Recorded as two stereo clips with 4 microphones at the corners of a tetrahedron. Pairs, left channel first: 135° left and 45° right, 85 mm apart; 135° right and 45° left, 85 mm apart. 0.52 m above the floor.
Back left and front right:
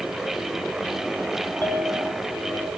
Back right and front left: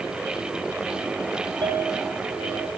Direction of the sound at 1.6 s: 70° left.